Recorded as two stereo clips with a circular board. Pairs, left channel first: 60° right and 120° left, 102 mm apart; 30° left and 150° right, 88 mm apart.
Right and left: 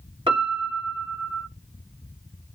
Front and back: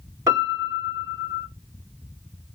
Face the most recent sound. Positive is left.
turn(degrees=155)